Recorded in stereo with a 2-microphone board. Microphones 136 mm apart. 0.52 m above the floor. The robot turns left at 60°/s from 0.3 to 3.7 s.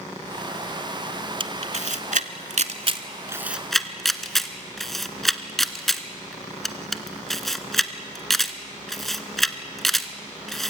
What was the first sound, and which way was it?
A camera shutter, 40° right (ahead or behind).